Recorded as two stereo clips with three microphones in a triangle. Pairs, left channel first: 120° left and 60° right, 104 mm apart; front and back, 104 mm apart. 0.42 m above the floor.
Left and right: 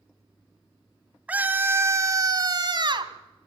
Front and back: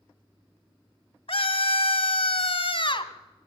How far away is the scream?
About 2.5 m.